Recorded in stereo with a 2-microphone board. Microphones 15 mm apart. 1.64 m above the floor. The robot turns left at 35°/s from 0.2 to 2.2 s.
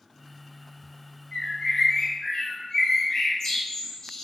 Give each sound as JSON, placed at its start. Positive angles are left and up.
{"t": 1.3, "sound": "a bird", "side_deg": 75, "distance_m": 1.8}